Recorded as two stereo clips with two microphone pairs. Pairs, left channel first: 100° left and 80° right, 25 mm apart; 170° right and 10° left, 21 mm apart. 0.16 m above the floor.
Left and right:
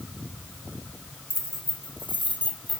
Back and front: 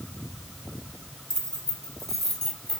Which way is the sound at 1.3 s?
110° right.